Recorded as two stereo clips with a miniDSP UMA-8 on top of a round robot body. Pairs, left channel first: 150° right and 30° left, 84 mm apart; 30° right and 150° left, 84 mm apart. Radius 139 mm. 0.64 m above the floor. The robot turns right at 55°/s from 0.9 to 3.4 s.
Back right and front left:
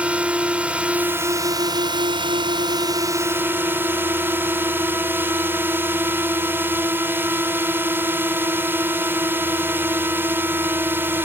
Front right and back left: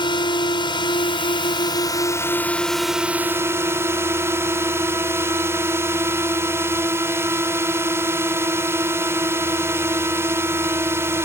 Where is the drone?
45° right; by 11.3 s 90° left.